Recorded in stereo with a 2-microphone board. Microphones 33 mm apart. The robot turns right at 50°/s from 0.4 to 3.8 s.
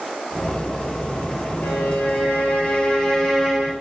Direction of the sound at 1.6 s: 85° left.